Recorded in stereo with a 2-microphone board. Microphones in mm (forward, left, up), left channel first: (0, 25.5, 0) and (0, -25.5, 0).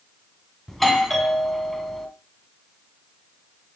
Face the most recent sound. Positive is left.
turn(degrees=5)  # may be behind; listen again after turning